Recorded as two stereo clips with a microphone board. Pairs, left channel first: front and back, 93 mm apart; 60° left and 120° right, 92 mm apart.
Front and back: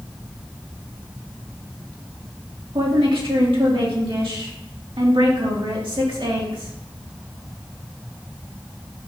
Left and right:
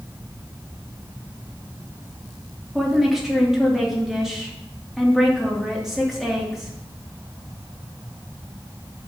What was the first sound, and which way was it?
A woman speaking, 155° left.